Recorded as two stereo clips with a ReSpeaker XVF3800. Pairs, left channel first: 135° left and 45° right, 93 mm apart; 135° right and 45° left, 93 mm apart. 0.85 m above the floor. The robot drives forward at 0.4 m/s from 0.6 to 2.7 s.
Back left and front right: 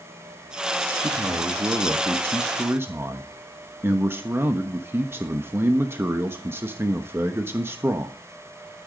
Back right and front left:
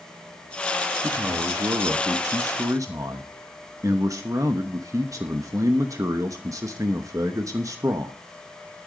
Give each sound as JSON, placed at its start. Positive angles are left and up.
{"t": 1.0, "sound": "a man speaking", "azimuth_deg": 5, "distance_m": 1.5}